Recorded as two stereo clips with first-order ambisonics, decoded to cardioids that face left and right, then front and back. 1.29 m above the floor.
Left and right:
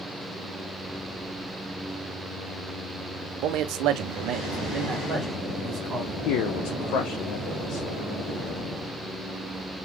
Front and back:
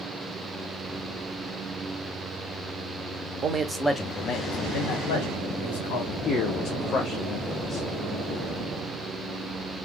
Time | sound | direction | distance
3.4 | a man speaking | 120° right | 0.5 m
6.2 | a man speaking | 65° left | 0.6 m